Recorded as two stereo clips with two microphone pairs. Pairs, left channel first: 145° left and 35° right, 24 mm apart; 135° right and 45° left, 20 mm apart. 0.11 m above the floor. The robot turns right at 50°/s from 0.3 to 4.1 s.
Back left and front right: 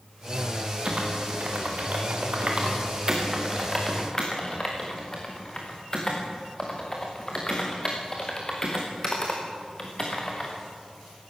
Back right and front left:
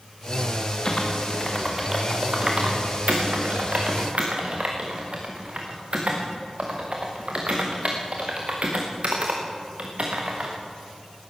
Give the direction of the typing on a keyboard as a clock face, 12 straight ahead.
3 o'clock.